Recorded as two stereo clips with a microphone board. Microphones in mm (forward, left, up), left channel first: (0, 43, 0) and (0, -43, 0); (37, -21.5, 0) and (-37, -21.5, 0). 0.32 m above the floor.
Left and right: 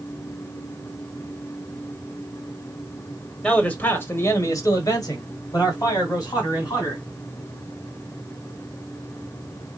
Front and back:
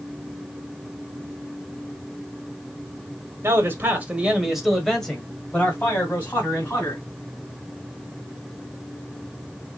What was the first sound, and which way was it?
A man speaking, 160° left.